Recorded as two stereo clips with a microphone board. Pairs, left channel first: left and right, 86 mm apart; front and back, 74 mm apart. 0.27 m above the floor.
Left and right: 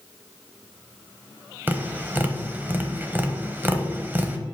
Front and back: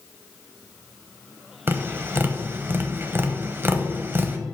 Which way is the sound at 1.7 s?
145° right.